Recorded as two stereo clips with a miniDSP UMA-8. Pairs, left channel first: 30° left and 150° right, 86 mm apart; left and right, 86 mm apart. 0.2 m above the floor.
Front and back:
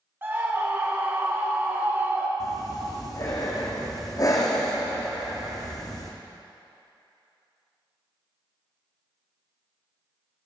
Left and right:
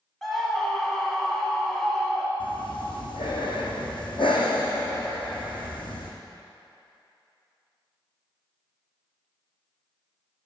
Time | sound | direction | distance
0.2 | a scream | 175° left | 1.3 m
2.4 | breathing | 75° left | 2.5 m